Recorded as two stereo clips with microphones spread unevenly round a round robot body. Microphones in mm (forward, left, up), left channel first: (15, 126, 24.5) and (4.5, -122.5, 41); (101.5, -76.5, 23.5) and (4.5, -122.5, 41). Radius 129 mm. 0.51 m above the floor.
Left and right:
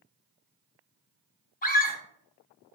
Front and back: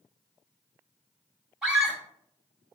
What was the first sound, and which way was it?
A scream, 110° left.